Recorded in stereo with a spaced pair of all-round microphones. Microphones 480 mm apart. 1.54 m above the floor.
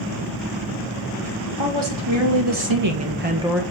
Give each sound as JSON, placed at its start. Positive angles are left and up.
{"t": 1.6, "sound": "a woman speaking", "side_deg": -70, "distance_m": 2.5}